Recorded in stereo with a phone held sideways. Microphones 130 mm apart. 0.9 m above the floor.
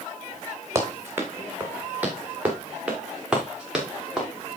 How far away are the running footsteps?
About 3 m.